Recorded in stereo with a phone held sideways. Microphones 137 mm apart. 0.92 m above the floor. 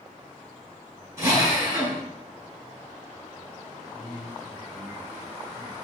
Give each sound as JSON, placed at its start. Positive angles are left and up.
{"t": 1.2, "sound": "a drill", "side_deg": -20, "distance_m": 6.0}
{"t": 3.9, "sound": "a man speaking", "side_deg": 50, "distance_m": 2.5}